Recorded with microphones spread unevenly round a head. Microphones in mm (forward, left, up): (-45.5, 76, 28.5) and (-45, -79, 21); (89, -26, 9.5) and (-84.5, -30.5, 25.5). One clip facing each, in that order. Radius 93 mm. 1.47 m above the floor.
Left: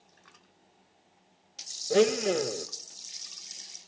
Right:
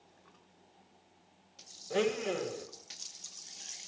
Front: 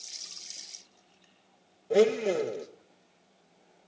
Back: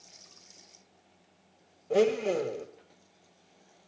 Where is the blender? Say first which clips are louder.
Left 8 dB, front 2 dB; 90° left, 0.7 m.